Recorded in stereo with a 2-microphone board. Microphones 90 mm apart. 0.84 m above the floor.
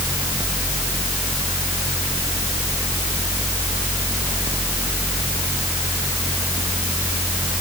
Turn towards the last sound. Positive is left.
No sound to turn to.